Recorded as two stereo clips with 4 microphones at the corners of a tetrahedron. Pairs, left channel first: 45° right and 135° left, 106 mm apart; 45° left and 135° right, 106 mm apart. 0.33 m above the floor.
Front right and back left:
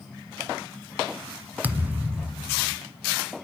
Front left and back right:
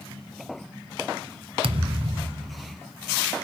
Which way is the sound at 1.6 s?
155° right.